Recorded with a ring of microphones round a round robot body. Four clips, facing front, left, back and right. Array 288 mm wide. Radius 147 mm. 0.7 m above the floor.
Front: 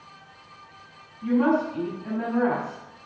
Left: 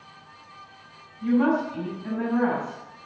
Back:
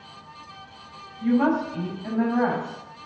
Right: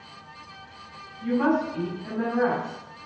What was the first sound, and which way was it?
A woman speaking, 175° left.